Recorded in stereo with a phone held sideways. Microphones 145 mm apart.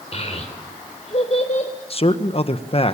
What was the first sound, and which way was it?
A child speaking, 45° left (ahead or behind).